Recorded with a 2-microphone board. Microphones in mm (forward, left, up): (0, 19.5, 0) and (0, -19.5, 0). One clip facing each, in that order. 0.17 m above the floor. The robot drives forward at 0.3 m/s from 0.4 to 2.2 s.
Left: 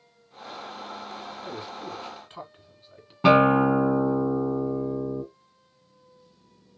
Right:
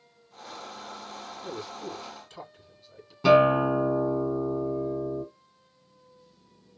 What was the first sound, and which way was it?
A man speaking, 35° left (ahead or behind).